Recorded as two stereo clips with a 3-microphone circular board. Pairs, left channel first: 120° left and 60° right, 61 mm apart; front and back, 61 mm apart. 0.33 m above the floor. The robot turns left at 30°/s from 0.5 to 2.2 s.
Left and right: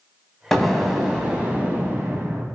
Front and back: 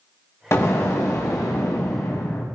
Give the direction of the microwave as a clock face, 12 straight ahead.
No microwave in this recording.